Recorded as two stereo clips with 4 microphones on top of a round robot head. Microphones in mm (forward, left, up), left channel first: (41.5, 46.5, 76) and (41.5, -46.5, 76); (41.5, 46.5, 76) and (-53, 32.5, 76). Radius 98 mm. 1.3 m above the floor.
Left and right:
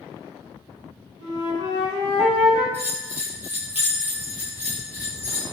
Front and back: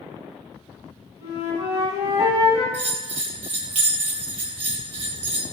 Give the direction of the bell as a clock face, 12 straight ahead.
5 o'clock.